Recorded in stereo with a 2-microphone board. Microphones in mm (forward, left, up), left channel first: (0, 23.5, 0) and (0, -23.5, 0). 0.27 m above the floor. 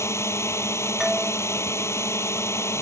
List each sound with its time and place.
0.0 s a drone: 80° left
1.0 s a doorbell: 5° right (ahead or behind)